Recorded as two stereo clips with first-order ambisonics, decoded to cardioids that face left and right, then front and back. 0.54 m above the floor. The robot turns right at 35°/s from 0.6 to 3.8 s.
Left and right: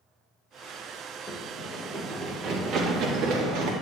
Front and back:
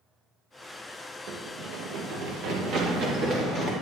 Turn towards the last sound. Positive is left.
turn(degrees=-105)